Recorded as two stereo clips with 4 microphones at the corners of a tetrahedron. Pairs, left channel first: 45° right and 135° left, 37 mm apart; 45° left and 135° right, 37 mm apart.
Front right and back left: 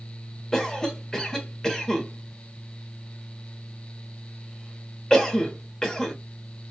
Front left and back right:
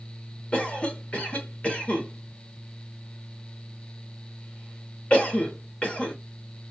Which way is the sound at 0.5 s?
20° left.